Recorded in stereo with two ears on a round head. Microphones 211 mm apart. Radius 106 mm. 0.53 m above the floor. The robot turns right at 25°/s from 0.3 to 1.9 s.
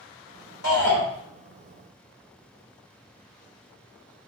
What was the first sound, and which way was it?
A shout, 70° left (ahead or behind).